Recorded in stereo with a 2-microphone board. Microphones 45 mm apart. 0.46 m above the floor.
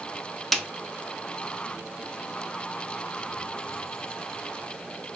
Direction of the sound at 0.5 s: 5° left (ahead or behind).